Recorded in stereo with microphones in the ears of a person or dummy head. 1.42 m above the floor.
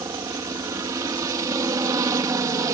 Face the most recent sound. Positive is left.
turn(degrees=-10)  # may be behind; listen again after turning